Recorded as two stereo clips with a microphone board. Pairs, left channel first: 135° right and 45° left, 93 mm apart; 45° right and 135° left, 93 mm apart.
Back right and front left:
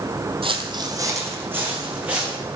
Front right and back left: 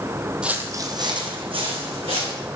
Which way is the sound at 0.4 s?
55° left.